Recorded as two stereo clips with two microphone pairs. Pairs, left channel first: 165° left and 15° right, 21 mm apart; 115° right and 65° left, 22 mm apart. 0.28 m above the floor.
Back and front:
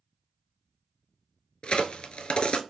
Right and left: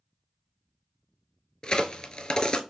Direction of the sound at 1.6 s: 165° right.